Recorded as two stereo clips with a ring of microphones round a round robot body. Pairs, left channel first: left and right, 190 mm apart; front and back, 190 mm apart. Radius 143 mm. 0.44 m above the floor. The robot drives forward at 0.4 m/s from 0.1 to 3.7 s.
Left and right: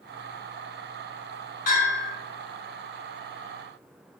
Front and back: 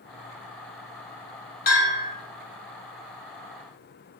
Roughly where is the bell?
Ahead left.